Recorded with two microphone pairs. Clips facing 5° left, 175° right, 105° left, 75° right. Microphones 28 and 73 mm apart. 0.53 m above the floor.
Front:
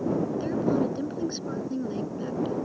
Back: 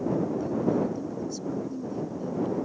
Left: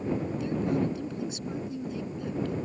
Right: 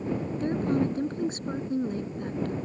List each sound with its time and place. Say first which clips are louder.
0.4 s a woman speaking: front 1 dB, right 4 dB; 30° right